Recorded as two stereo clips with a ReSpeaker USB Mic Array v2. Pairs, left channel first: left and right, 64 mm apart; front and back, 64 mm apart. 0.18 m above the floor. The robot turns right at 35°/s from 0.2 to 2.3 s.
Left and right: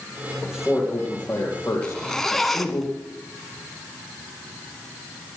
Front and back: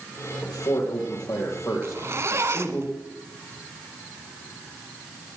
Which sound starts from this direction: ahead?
A man speaking, at 0.5 s.